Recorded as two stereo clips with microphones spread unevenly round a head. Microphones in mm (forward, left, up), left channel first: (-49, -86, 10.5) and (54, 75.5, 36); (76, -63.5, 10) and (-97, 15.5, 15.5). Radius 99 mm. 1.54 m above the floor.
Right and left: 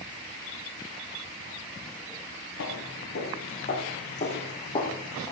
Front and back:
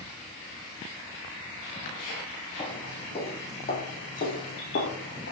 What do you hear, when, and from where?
2.6 s footsteps: 90° right, 4.5 m; by 5.3 s 45° right, 4 m